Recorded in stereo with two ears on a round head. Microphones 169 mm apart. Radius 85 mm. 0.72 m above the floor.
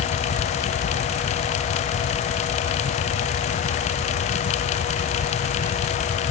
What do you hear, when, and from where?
Only background noise.